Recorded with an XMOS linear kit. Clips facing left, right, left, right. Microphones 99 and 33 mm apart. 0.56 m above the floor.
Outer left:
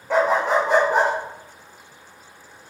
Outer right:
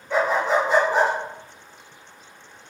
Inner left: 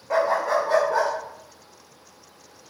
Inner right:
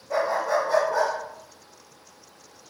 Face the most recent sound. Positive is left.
turn(degrees=50)  # may be behind; listen again after turning